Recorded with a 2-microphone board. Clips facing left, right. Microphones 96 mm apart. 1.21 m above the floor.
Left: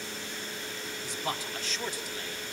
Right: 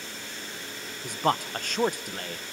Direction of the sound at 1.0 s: 55° right (ahead or behind).